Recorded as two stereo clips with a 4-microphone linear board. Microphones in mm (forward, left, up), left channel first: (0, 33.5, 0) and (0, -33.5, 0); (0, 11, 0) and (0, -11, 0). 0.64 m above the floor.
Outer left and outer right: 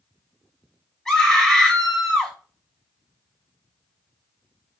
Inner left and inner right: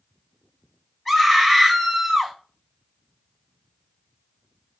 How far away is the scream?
About 3 m.